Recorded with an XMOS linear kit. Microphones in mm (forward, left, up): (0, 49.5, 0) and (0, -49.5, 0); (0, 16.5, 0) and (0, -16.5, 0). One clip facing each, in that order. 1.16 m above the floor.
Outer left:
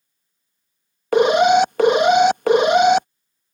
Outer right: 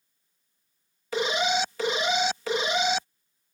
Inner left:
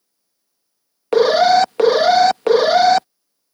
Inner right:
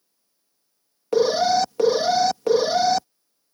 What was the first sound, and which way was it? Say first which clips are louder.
An alarm: outer left 13 dB, inner left 7 dB; 60° left (ahead or behind).